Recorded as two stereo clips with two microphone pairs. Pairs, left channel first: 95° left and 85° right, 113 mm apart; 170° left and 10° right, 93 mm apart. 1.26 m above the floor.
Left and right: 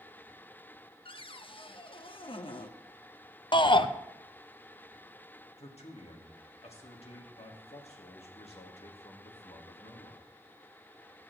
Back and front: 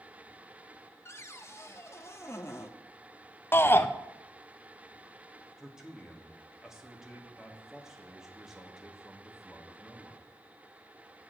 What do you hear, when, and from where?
1.1 s a cupboard door: 120° left, 0.7 m
3.5 s a shout: 120° left, 0.7 m
5.6 s a man speaking: 80° left, 1.9 m